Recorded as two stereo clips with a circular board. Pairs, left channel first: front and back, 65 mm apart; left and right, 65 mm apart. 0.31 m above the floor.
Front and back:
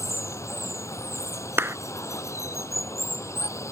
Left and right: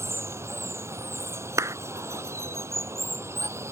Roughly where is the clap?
Behind right.